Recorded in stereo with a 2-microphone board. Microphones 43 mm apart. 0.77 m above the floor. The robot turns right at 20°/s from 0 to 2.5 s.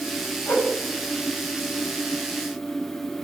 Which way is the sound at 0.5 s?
70° left (ahead or behind).